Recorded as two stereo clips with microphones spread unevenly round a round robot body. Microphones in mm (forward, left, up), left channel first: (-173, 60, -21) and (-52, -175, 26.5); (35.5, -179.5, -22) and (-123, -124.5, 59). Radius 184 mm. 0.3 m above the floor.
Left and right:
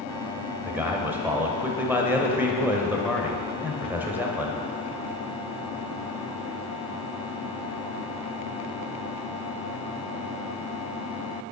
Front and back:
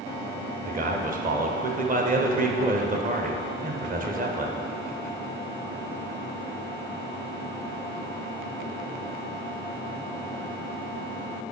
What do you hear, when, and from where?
0.7 s a man speaking: 160° right, 1.0 m